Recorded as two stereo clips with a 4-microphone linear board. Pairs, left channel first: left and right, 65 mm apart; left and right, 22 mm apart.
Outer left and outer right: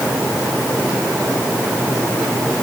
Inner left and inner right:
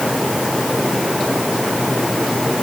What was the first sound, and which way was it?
Only background noise.